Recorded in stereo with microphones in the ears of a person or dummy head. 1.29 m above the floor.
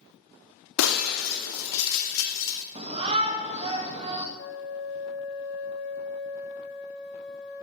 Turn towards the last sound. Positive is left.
turn(degrees=60)  # may be behind; listen again after turning